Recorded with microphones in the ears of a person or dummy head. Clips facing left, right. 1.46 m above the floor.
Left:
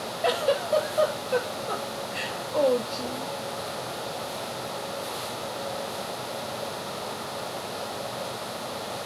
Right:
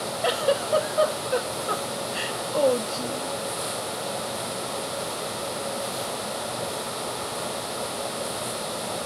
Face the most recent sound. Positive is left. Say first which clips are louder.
# even
turn(degrees=-5)  # may be behind; listen again after turning